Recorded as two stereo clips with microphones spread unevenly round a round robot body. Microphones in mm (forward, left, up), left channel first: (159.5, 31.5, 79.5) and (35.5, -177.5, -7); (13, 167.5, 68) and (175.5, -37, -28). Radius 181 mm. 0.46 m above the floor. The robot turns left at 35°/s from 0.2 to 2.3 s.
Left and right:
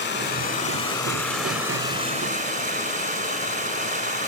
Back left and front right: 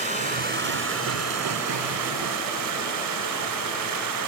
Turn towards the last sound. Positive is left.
turn(degrees=-65)